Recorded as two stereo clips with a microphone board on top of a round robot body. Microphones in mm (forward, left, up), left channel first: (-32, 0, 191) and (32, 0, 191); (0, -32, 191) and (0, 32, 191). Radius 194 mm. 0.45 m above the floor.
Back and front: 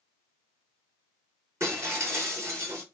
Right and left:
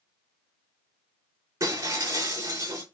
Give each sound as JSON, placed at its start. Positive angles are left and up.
{"t": 1.6, "sound": "breaking glass", "azimuth_deg": 45, "distance_m": 4.5}